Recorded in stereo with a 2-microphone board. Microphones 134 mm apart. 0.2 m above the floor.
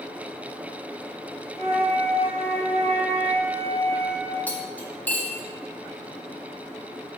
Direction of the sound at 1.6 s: 55° right (ahead or behind).